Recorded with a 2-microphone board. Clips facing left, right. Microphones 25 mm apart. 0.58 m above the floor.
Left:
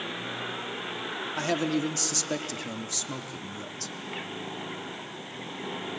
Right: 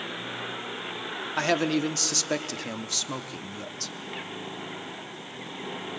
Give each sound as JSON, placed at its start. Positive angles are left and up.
{"t": 1.4, "sound": "a man speaking", "side_deg": -35, "distance_m": 0.8}